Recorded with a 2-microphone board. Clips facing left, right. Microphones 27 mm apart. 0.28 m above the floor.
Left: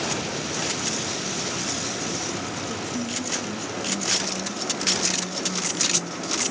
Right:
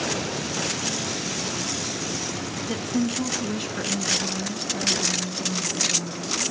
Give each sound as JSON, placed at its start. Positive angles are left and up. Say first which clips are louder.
{"t": 2.6, "sound": "a woman speaking", "louder": "right 3 dB", "side_deg": -60, "distance_m": 1.9}